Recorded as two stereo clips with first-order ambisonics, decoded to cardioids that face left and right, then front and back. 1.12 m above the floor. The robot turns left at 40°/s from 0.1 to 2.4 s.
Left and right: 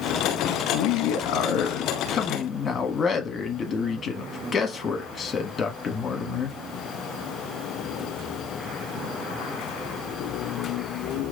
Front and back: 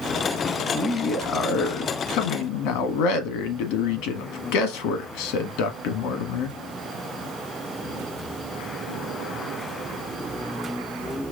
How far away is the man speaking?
About 1.4 m.